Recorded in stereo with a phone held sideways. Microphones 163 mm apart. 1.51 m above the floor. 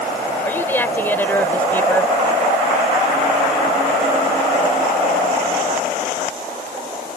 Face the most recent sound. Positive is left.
turn(degrees=10)  # may be behind; listen again after turning